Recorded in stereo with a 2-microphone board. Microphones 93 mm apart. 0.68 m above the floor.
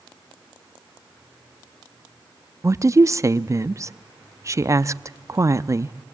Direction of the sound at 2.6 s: 35° right (ahead or behind).